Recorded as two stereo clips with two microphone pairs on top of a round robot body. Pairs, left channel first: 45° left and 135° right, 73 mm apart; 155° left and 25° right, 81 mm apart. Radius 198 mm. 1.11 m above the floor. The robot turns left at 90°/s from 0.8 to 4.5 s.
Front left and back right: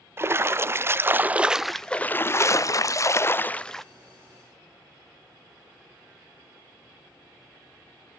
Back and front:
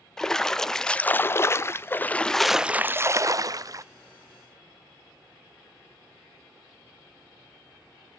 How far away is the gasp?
No gasp in this recording.